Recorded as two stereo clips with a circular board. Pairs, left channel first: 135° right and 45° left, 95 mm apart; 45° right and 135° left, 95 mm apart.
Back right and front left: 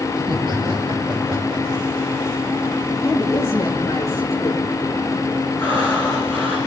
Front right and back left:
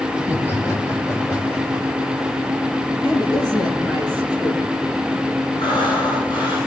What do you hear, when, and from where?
0.2 s laughter: 15° left, 7 m; by 2.0 s straight ahead, 7.5 m
3.0 s a woman speaking: 85° right, 7.5 m
5.6 s breathing: 70° right, 9 m